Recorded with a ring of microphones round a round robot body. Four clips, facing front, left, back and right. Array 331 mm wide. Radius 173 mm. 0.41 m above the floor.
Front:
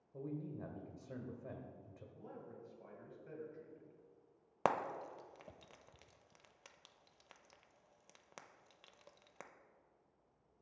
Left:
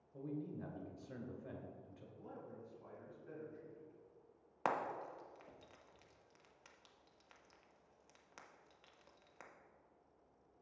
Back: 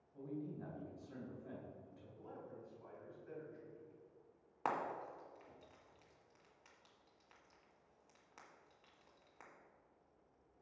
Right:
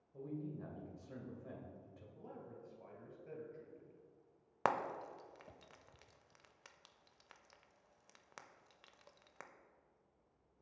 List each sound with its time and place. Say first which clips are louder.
0.1 s a man speaking: even, front 1 dB; 15° left, 1.7 m
2.1 s a man speaking: even, even; 50° right, 2.5 m
4.7 s frying: right 2 dB, front 4 dB; 20° right, 0.6 m